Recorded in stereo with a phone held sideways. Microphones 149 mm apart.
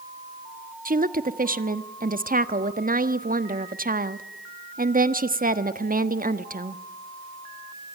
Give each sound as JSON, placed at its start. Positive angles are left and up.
{"t": 0.8, "sound": "a woman speaking", "side_deg": -60, "distance_m": 1.2}